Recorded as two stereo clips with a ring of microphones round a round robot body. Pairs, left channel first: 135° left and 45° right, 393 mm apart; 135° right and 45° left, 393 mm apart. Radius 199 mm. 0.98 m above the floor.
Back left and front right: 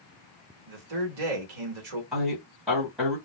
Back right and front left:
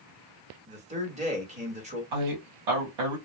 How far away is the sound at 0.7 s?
About 1.3 m.